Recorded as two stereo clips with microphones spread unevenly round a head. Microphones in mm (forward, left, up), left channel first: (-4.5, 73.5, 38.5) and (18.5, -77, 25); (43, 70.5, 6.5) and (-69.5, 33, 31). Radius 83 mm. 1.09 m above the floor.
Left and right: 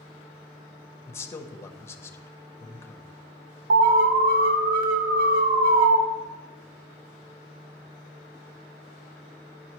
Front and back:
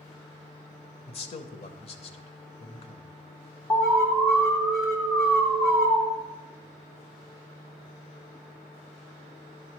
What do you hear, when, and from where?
1.1 s a man speaking: 25° left, 0.7 m
3.7 s an alarm: 65° right, 0.8 m